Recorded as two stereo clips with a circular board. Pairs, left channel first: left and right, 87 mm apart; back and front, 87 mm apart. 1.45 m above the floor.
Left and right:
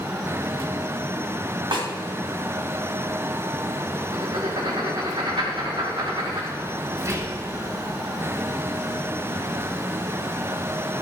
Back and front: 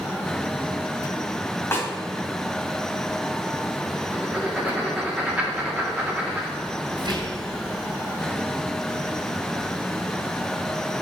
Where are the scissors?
No scissors in this recording.